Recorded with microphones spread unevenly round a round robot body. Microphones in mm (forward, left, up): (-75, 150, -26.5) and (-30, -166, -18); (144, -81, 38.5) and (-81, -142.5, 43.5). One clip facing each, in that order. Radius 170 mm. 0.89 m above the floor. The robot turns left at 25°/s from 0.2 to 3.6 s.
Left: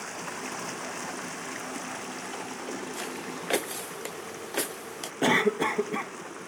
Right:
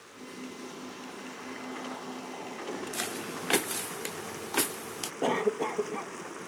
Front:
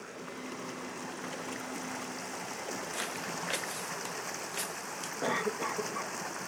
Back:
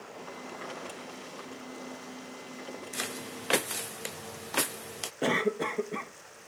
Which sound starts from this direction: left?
Running water, at 0.0 s.